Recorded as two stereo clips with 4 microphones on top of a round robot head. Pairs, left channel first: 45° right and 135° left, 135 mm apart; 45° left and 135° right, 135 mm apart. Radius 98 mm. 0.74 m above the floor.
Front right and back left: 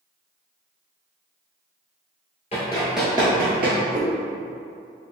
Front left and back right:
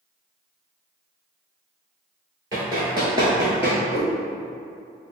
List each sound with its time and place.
2.5 s running footsteps: 80° right, 0.8 m; by 3.8 s 145° left, 1.0 m
3.9 s a cat meowing: 70° left, 0.7 m